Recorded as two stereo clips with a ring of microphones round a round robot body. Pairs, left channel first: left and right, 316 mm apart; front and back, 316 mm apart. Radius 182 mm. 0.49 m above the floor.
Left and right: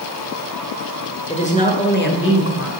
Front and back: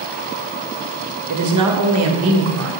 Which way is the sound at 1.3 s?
160° left.